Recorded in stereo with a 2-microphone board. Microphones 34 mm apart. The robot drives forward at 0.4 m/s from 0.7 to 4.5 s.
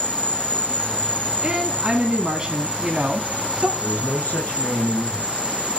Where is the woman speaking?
25° right (ahead or behind), 2 m; by 3.7 s 35° right (ahead or behind), 1.5 m.